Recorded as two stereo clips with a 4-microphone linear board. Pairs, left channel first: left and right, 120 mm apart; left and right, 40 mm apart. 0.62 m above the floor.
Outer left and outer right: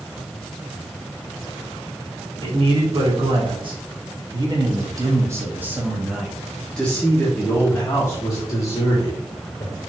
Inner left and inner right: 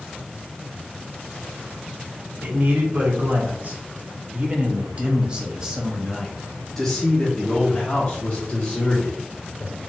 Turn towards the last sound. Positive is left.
turn(degrees=35)  # may be behind; listen again after turning